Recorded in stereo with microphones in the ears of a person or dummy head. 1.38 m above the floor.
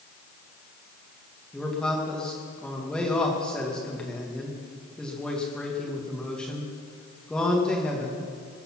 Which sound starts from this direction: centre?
A man speaking, at 1.5 s.